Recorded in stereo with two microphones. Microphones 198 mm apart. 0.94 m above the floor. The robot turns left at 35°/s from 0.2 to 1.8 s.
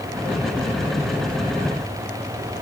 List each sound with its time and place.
Only background noise.